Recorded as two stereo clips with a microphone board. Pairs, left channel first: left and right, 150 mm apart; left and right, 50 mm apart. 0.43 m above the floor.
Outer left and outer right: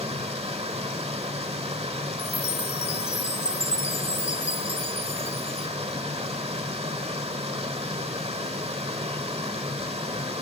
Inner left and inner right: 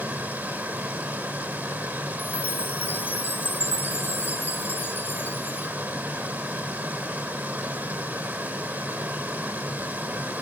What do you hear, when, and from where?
0.0 s running water: 40° right (ahead or behind), 2.5 m
2.2 s a chime: 50° left (ahead or behind), 1.4 m